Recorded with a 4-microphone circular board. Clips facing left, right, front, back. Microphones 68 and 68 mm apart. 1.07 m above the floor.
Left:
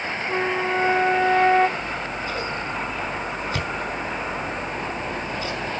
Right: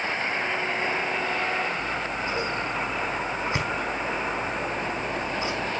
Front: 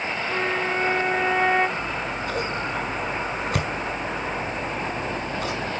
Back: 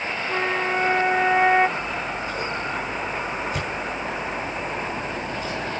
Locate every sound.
0.3 s a flute: 105° left, 1.1 m
1.8 s scissors: 20° right, 5 m